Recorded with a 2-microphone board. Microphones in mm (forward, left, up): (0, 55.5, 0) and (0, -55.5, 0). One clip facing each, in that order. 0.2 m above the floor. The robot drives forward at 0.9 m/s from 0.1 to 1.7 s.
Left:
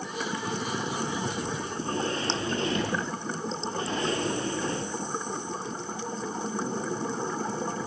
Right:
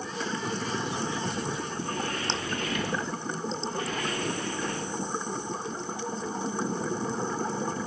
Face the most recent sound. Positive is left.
turn(degrees=30)  # may be behind; listen again after turning